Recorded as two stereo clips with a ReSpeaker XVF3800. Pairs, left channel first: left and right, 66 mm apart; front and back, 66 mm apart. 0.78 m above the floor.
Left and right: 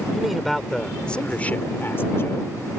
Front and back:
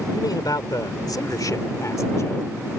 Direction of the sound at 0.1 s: 5° right.